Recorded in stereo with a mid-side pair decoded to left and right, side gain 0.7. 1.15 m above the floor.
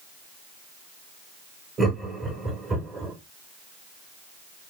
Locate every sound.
1.8 s laughter: 25° right, 1.4 m